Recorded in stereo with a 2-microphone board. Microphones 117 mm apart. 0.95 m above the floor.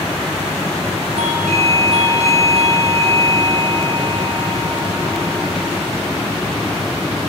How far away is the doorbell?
About 7.5 m.